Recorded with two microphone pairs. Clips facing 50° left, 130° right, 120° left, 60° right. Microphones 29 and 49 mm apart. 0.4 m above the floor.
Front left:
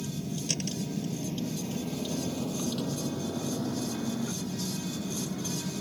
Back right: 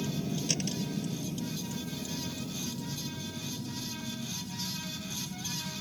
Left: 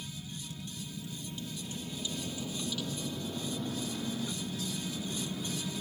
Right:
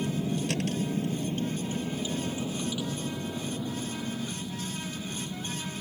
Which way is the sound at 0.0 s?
55° right.